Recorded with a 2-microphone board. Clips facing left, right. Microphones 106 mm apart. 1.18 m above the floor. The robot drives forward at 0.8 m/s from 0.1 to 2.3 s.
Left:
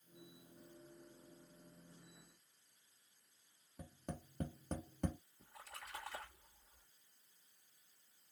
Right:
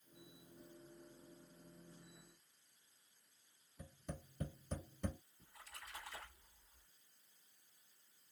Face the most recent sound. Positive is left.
turn(degrees=80)